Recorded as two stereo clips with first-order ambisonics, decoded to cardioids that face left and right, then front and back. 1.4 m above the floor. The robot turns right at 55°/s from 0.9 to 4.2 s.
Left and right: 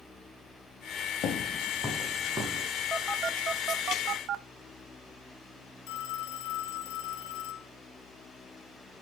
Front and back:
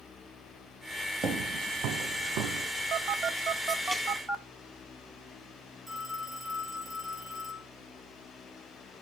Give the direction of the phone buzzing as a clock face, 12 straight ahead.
6 o'clock.